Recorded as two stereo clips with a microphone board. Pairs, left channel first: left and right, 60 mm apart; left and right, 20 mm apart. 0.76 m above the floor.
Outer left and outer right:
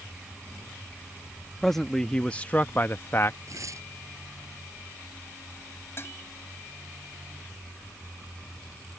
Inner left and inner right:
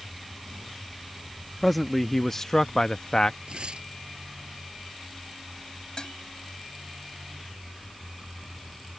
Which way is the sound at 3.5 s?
60° right (ahead or behind).